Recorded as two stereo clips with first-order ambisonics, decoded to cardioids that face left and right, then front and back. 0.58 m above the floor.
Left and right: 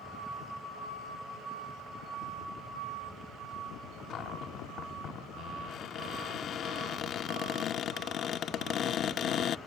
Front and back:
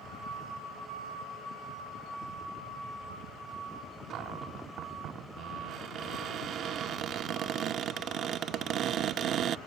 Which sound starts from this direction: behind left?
A cupboard door, at 4.1 s.